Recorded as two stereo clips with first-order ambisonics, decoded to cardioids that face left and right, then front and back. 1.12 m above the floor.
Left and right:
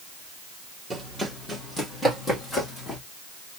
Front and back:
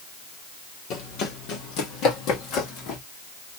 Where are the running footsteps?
10° right, 1.6 m; by 3.0 s 25° left, 2 m.